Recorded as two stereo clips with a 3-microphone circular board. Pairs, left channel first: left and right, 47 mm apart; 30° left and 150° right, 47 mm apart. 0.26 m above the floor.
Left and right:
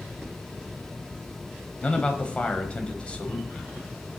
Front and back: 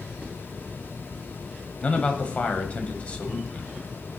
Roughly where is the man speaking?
Ahead left.